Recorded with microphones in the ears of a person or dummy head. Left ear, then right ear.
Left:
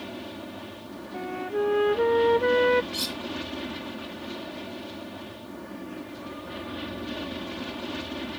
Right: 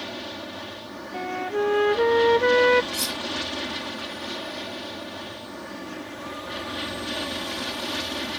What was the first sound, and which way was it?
An aircraft, 40° right (ahead or behind).